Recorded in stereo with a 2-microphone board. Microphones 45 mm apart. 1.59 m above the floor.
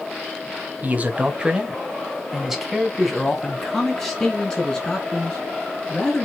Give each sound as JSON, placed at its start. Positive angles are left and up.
{"t": 0.8, "sound": "a man speaking", "side_deg": -40, "distance_m": 1.2}